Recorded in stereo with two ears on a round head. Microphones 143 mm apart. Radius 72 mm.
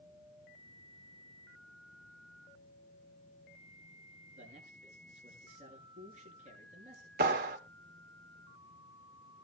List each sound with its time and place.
4.3 s a man speaking: 45° right (ahead or behind), 7 m
7.2 s a clap: 60° right (ahead or behind), 1.7 m